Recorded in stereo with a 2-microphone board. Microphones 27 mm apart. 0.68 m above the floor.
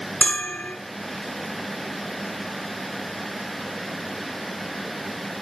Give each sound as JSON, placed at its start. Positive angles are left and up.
{"t": 0.2, "sound": "a bell", "side_deg": 60, "distance_m": 1.2}